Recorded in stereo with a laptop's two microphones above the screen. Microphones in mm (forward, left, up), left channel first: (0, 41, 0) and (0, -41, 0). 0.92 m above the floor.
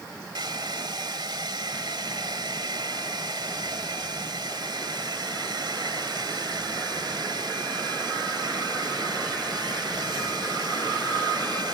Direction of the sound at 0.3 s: 65° right (ahead or behind).